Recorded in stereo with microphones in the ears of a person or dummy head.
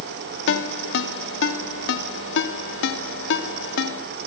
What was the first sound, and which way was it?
A ringtone, 80° left.